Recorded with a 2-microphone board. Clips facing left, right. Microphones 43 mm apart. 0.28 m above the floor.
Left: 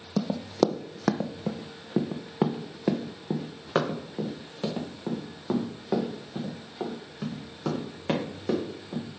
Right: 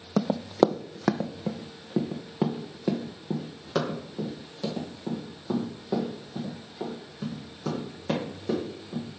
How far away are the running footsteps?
About 0.6 m.